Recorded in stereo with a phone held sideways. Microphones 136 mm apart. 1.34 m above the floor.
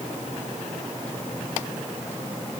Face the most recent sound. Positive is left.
No sound to turn to.